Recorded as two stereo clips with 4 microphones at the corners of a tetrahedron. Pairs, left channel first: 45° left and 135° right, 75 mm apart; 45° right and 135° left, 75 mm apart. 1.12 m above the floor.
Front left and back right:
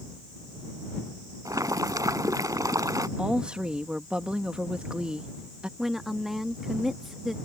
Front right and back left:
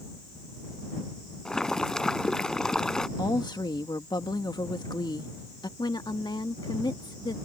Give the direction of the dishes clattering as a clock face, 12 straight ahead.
I don't hear dishes clattering.